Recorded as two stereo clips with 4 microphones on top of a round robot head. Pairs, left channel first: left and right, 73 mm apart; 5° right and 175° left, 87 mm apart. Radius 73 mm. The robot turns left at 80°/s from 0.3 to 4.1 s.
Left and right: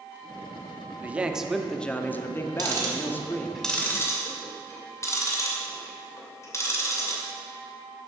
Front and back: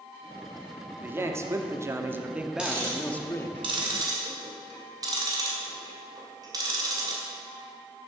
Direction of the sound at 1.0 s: 135° right.